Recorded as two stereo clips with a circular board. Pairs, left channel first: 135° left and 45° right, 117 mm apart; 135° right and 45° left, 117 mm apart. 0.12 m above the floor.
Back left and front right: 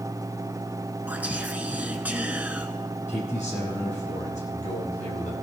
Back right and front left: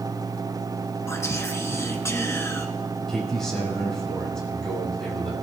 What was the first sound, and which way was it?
Whispering, 105° right.